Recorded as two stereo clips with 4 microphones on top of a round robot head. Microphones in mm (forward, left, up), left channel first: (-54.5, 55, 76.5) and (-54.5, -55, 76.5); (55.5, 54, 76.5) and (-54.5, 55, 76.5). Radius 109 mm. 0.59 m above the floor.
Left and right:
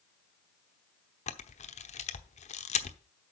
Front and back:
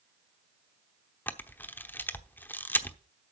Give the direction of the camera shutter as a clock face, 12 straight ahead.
10 o'clock.